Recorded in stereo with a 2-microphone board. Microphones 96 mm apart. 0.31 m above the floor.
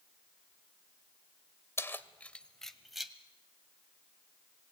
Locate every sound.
1.8 s keys jangling: 30° left (ahead or behind), 0.9 m; by 3.1 s 5° right (ahead or behind), 1.5 m